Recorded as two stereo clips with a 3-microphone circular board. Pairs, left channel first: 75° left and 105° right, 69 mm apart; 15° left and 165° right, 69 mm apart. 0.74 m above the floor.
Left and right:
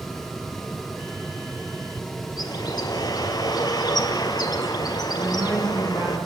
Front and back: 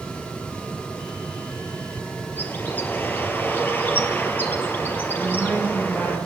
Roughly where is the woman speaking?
Ahead right.